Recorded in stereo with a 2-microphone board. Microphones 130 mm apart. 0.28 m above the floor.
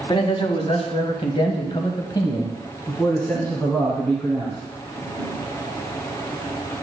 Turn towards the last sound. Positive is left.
turn(degrees=10)  # may be behind; listen again after turning